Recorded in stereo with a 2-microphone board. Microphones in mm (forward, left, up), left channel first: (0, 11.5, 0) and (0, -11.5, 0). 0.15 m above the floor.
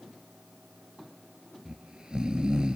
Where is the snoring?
40° right (ahead or behind), 0.9 m.